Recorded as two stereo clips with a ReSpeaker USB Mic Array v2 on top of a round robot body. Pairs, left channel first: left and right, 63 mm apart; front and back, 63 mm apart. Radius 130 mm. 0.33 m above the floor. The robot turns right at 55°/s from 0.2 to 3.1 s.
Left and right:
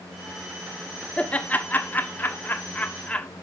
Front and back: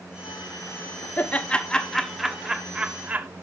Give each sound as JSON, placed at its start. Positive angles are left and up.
{"t": 1.2, "sound": "laughter", "azimuth_deg": 35, "distance_m": 1.7}